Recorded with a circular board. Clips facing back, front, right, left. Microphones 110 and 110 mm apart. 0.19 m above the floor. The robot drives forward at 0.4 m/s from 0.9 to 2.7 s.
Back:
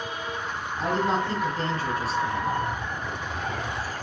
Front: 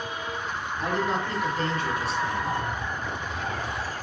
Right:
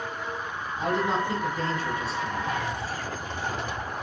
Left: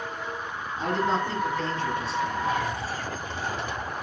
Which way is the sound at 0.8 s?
155° right.